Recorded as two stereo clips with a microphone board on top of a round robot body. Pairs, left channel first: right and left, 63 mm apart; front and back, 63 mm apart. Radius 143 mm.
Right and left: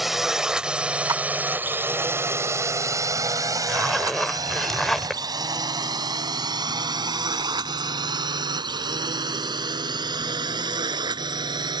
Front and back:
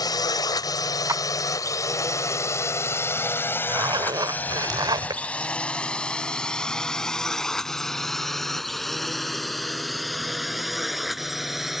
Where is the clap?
135° left.